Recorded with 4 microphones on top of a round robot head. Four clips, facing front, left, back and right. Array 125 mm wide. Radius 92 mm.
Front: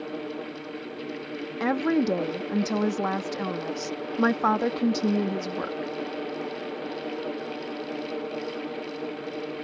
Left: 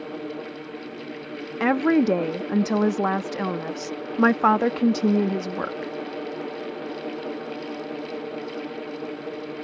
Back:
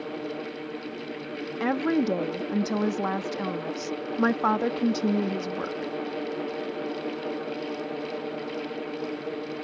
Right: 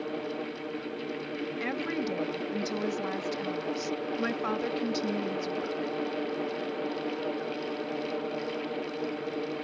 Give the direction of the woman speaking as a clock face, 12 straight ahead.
9 o'clock.